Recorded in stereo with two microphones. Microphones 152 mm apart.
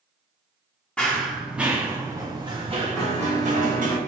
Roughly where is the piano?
Centre.